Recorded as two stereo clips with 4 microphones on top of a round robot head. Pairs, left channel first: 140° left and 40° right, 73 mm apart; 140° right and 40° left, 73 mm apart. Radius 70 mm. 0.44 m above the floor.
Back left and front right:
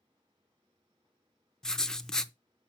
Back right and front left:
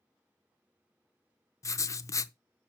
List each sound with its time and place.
1.6 s writing: 140° right, 0.6 m